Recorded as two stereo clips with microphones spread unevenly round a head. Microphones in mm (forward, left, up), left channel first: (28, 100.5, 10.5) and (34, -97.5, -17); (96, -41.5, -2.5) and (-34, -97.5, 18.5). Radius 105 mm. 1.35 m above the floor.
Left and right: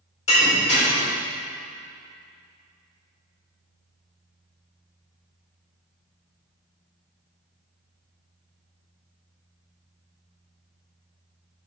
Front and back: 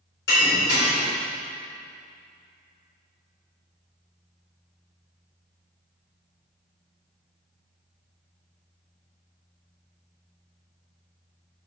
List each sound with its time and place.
0.3 s breaking glass: 35° left, 3 m